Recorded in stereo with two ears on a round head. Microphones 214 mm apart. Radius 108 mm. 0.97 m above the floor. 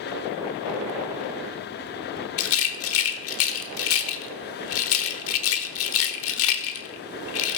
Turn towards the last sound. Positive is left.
turn(degrees=55)  # may be behind; listen again after turning